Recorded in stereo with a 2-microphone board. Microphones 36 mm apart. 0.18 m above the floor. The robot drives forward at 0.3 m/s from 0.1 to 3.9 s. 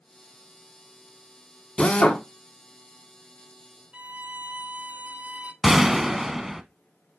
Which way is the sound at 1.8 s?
35° left (ahead or behind).